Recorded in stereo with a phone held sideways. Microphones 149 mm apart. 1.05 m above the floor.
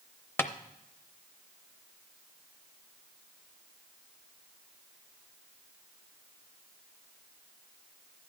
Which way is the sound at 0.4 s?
15° left (ahead or behind).